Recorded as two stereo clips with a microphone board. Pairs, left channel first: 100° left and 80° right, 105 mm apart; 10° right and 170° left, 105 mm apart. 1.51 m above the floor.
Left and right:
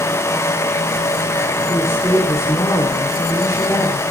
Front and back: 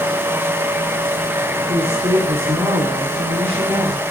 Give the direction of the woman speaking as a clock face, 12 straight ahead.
7 o'clock.